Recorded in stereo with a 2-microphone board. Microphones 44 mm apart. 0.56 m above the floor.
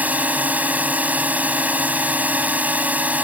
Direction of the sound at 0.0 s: 35° right (ahead or behind).